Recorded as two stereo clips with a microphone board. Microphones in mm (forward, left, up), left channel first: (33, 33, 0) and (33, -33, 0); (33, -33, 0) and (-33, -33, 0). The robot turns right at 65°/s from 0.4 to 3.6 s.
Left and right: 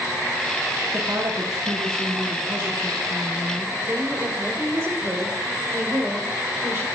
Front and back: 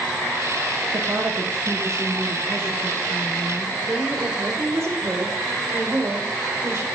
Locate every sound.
0.9 s a woman speaking: 150° right, 1.6 m; by 3.7 s 25° left, 1.6 m
3.8 s a woman speaking: 140° right, 3.5 m